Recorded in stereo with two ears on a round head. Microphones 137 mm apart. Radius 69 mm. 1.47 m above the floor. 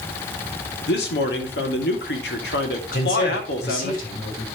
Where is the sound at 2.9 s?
65° left (ahead or behind), 5.5 m.